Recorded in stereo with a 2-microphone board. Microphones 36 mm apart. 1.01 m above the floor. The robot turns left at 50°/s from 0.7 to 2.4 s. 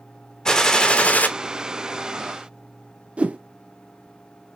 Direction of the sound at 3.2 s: 35° right (ahead or behind).